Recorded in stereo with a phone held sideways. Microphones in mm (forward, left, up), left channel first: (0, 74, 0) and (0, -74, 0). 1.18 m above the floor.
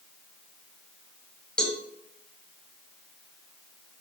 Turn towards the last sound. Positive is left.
turn(degrees=5)  # may be behind; listen again after turning